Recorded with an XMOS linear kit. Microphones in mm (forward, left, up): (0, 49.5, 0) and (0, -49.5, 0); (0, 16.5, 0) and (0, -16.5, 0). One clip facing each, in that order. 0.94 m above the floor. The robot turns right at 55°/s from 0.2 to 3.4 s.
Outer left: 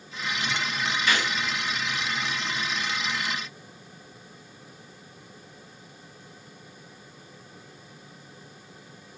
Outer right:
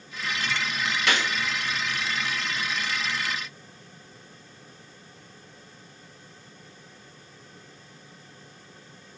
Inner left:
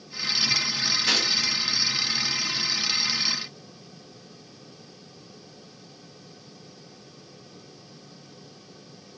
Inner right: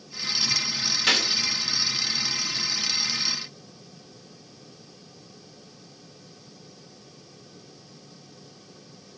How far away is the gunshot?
About 1.1 m.